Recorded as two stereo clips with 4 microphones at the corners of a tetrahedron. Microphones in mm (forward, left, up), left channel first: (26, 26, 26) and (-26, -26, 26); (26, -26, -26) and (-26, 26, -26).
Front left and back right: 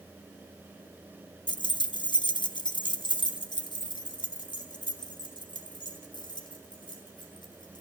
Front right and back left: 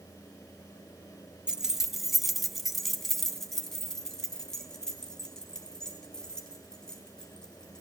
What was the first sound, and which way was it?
Keys jangling, 55° left.